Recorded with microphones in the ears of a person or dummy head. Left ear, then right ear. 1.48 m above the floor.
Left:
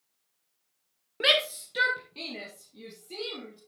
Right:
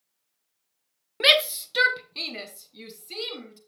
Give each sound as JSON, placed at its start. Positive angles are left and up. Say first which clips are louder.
{"t": 1.2, "sound": "a shout", "louder": "right 5 dB", "side_deg": -25, "distance_m": 0.6}